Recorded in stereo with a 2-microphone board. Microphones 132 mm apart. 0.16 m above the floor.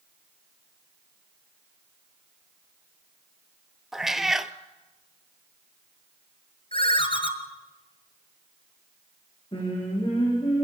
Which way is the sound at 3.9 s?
Centre (ahead or behind).